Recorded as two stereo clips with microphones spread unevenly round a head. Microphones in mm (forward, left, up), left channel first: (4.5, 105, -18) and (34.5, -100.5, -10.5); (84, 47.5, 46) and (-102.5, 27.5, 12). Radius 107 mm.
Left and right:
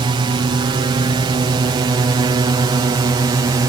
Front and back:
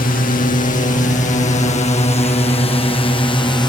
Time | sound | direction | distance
0.0 | a drone | 25° right | ?